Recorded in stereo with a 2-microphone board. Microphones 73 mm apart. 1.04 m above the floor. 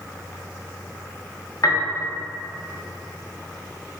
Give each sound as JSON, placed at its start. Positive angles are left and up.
{"t": 1.6, "sound": "a piano", "side_deg": 50, "distance_m": 0.7}